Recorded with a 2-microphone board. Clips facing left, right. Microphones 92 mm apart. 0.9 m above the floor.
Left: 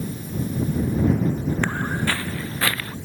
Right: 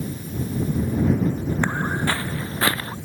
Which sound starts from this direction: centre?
Footsteps, at 1.6 s.